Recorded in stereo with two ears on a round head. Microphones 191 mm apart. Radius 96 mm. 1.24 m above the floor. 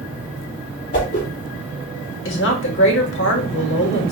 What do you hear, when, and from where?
0.9 s a whoosh: 40° left (ahead or behind), 1.5 m
2.2 s a woman speaking: 60° left (ahead or behind), 1.2 m